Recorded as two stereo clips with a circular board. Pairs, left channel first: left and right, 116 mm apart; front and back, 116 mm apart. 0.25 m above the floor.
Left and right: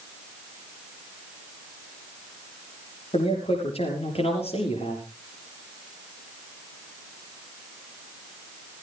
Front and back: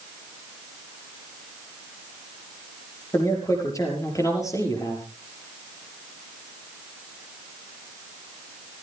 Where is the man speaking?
60° left, 6.5 m.